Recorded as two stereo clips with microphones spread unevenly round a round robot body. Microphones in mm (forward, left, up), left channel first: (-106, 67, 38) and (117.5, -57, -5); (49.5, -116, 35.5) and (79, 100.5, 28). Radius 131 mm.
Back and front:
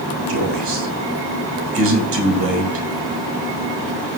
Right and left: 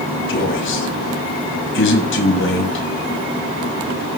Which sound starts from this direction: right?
A man speaking, at 0.3 s.